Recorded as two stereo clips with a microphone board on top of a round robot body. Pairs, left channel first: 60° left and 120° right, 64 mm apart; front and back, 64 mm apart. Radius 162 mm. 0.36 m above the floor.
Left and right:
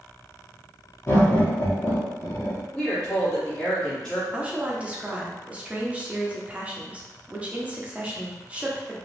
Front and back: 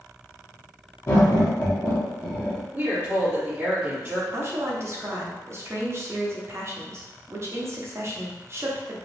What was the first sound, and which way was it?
Laughter, 30° left.